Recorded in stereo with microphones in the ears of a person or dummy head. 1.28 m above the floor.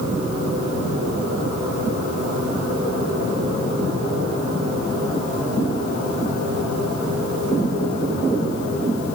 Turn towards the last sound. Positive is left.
No sound to turn to.